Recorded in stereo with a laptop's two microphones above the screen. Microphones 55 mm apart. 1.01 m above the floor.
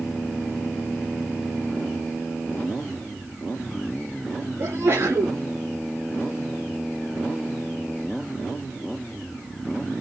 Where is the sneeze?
55° right (ahead or behind), 2.5 m.